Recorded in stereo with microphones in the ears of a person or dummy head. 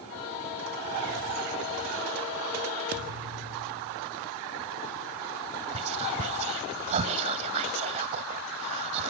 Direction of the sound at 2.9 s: 45° right (ahead or behind).